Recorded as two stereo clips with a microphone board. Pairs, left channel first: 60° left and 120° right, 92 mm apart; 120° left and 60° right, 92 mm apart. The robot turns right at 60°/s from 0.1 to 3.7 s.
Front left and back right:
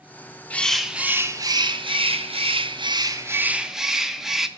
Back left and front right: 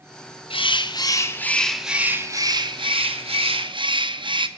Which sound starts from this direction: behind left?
A bird, at 0.5 s.